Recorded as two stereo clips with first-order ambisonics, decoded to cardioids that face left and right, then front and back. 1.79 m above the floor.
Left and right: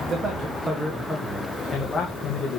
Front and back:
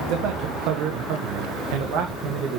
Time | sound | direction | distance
0.1 | a man speaking | 150° right | 1.5 m